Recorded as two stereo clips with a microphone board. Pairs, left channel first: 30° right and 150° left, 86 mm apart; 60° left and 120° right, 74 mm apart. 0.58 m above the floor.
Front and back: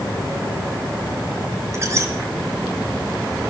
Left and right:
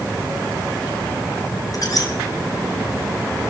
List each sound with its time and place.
1.7 s a squeak: 95° left, 2.0 m